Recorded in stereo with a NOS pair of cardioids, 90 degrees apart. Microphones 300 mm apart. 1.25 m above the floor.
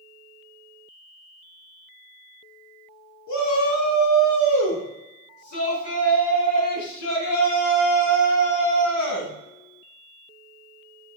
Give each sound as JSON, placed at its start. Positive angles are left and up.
{"t": 3.3, "sound": "a shout", "azimuth_deg": 70, "distance_m": 2.5}